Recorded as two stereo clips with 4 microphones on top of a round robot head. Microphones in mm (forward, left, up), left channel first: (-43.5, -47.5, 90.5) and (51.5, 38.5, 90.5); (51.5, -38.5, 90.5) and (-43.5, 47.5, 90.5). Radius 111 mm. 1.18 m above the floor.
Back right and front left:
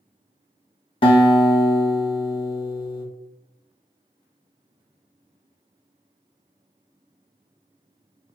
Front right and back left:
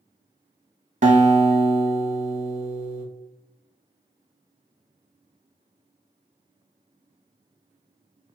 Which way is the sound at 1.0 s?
170° left.